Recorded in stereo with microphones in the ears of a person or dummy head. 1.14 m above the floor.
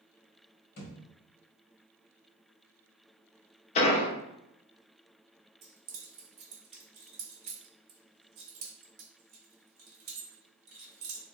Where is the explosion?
35° left (ahead or behind), 0.5 m.